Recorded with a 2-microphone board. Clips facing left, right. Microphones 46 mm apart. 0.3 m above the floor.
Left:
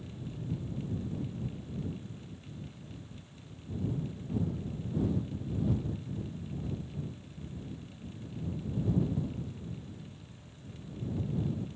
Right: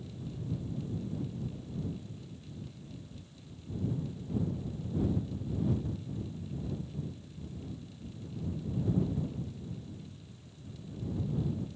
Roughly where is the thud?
Left.